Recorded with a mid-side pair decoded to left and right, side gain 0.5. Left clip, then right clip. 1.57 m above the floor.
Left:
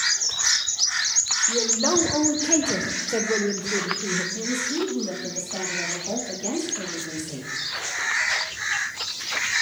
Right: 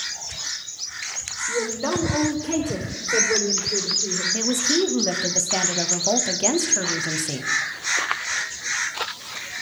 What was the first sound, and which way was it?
A woman speaking, 15° left.